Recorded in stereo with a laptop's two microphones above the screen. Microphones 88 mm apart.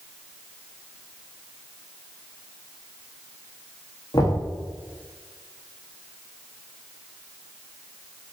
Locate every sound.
4.1 s knocking: 50° left (ahead or behind), 1.6 m